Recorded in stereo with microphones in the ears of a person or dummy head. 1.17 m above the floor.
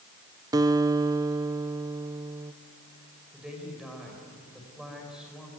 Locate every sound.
0.5 s a guitar: 15° right (ahead or behind), 0.6 m
3.3 s a woman speaking: 5° right (ahead or behind), 4.5 m